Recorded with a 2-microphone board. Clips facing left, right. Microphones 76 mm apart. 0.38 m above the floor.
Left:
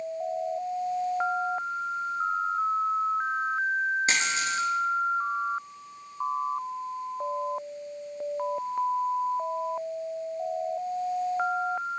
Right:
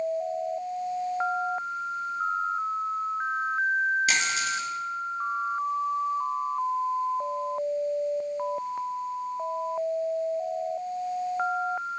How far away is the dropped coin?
About 2 m.